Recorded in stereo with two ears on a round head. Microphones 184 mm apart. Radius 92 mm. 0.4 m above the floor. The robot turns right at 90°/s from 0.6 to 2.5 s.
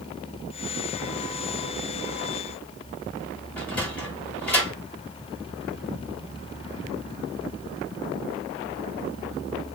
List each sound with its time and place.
3.6 s a sliding door: 5° left (ahead or behind), 1.8 m